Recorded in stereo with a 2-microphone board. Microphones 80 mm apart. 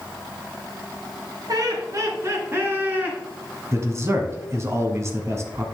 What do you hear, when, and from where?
1.5 s laughter: 55° right (ahead or behind), 2.5 m; by 3.2 s 20° right (ahead or behind), 3 m
3.7 s a man speaking: 35° right (ahead or behind), 1.5 m